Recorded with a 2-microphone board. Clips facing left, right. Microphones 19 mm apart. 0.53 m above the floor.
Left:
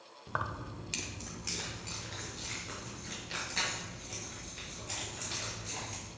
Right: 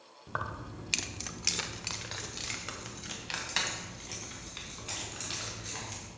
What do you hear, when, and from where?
0.3 s keys jangling: 5° left (ahead or behind), 0.7 m; by 6.1 s 50° right (ahead or behind), 4.5 m